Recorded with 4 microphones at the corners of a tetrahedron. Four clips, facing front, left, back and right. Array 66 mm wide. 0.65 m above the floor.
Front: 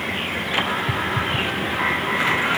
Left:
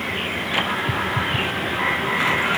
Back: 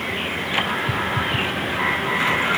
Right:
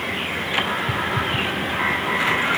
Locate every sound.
Only background noise.